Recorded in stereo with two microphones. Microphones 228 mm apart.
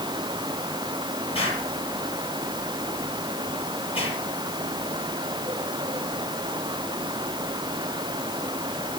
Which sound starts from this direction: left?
An explosion, at 1.4 s.